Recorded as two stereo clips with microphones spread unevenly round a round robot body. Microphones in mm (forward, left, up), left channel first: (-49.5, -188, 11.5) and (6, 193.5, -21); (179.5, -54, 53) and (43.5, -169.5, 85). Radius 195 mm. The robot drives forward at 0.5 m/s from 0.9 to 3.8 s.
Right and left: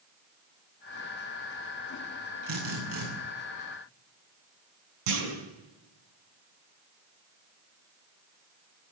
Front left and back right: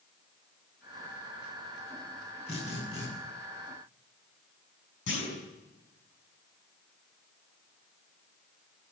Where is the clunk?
75° left, 5.5 m.